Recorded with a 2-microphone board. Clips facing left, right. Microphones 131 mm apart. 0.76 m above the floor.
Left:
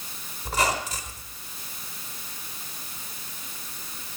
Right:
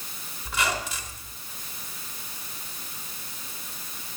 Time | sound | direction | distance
0.5 | a squeak | 40° left (ahead or behind) | 3 m